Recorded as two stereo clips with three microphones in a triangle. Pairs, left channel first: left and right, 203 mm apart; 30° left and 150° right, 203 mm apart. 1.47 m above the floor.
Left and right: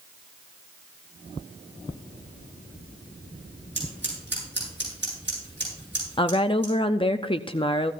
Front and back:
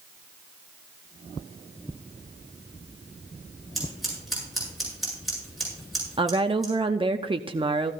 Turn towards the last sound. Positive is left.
turn(degrees=155)